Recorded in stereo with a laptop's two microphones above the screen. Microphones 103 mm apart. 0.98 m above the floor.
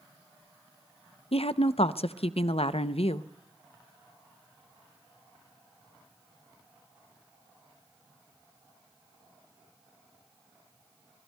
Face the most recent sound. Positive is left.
turn(degrees=70)  # may be behind; listen again after turning